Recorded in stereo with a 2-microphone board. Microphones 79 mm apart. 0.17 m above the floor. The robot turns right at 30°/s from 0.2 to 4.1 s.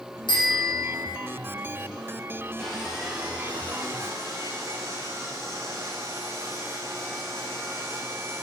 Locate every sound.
0.3 s a bicycle bell: 80° left, 6.5 m; by 1.1 s 65° left (ahead or behind), 6.5 m
2.6 s sawing: 170° left, 5 m; by 8.4 s 145° right, 5 m